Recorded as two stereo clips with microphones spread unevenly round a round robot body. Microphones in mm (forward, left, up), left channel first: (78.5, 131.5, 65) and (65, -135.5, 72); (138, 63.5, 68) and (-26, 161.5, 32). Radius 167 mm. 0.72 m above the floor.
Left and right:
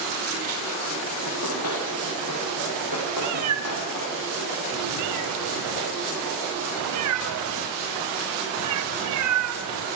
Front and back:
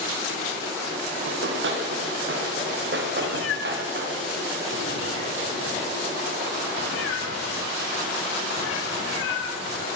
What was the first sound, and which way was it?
Running footsteps, 135° left.